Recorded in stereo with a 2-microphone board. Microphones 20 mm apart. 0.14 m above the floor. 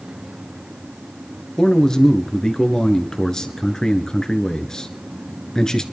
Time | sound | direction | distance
1.6 | a man speaking | 30° left (ahead or behind) | 1.5 m